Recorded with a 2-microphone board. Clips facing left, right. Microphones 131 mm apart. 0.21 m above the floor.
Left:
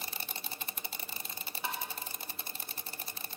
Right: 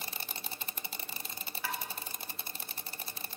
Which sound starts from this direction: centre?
Tapping, at 1.6 s.